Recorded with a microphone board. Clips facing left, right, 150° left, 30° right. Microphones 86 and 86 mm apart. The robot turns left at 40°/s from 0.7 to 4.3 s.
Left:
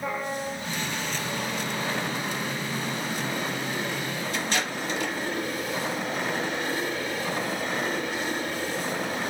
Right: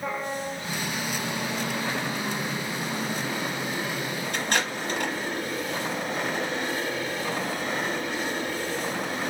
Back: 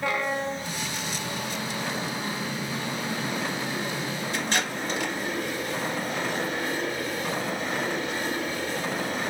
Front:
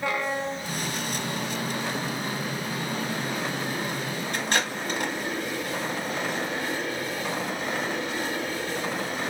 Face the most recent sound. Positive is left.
turn(degrees=-60)